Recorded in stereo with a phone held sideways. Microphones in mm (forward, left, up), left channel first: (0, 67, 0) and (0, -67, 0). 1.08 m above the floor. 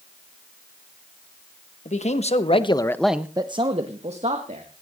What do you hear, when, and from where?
1.9 s a man speaking: 60° left (ahead or behind), 1.8 m; by 4.7 s 60° right (ahead or behind), 2.5 m